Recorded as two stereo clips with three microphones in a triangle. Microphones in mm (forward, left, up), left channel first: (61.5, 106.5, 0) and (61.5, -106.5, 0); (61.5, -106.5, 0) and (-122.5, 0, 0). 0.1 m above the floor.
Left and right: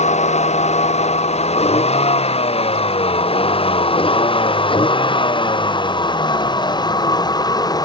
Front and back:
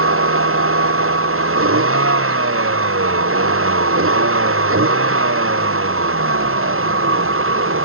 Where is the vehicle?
150° left; by 7.9 s 160° left.